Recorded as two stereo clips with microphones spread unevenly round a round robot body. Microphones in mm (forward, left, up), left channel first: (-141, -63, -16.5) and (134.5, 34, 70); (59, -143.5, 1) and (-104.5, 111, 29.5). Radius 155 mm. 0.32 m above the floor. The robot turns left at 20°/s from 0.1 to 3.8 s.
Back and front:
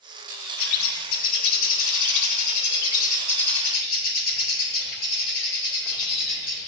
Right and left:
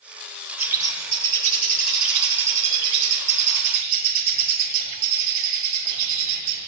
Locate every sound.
0.6 s a bird: 155° right, 1.4 m; by 6.7 s 140° left, 1.4 m